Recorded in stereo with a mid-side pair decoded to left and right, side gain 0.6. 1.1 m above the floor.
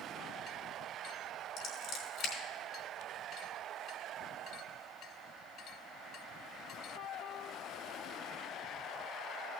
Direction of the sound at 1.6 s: 60° left.